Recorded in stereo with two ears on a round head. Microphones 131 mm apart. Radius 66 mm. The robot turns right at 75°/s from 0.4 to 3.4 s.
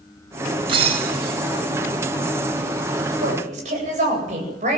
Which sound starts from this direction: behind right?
Breaking glass, at 0.7 s.